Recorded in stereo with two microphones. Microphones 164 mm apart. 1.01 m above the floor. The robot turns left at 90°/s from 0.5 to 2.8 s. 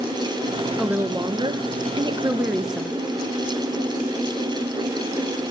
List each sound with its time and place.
0.8 s a woman speaking: 5° right, 0.7 m; by 3.0 s 175° left, 0.7 m